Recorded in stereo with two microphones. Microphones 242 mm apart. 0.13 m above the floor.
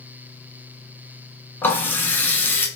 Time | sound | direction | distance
1.6 | a running tap | 10° left (ahead or behind) | 0.8 m